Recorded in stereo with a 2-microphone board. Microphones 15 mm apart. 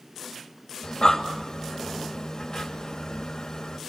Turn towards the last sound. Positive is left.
turn(degrees=50)  # may be behind; listen again after turning